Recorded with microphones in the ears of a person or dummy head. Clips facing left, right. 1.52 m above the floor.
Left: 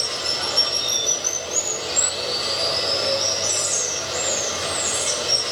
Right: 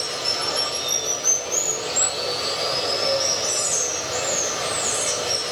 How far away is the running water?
About 0.8 m.